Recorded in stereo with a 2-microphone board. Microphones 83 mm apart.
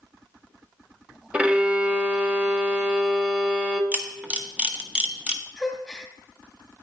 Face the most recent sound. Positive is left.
turn(degrees=0)  # may be behind; listen again after turning